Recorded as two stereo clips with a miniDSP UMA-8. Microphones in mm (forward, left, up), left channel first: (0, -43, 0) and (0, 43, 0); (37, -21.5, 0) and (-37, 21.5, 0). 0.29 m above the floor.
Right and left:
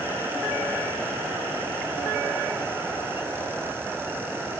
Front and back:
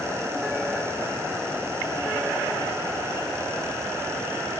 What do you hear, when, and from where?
Only background noise.